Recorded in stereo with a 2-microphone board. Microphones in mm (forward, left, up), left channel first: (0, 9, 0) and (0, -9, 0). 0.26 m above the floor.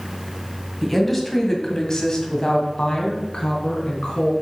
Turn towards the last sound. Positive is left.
turn(degrees=60)  # may be behind; listen again after turning